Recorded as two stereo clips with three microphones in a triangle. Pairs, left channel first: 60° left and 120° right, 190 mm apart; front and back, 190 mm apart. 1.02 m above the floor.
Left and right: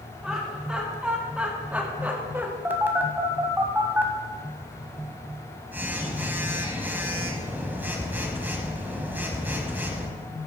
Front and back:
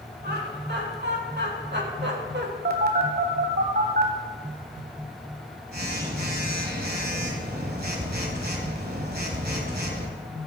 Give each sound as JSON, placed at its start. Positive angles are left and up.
{"t": 0.2, "sound": "laughter", "azimuth_deg": 155, "distance_m": 3.0}
{"t": 2.6, "sound": "a phone buzzing", "azimuth_deg": 160, "distance_m": 1.5}